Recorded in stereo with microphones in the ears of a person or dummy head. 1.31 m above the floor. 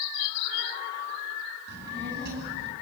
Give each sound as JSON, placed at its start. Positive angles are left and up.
{"t": 1.7, "sound": "a child speaking", "side_deg": -60, "distance_m": 8.5}